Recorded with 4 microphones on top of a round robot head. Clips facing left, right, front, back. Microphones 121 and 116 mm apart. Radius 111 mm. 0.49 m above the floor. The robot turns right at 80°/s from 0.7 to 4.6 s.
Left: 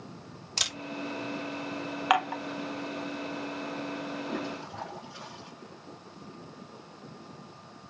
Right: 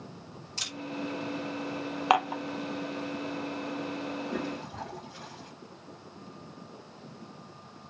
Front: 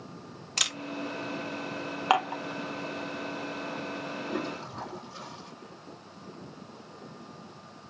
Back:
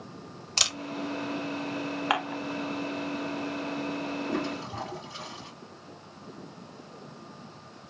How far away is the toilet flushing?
About 2 m.